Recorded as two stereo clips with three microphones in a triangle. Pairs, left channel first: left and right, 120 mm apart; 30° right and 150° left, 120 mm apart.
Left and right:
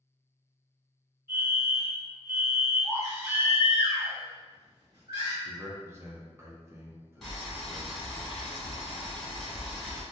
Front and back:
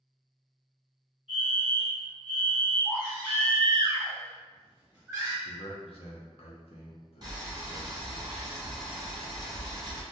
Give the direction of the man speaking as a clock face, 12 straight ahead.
1 o'clock.